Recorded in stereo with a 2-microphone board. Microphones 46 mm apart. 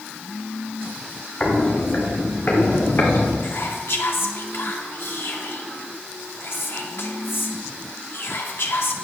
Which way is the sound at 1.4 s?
25° left (ahead or behind).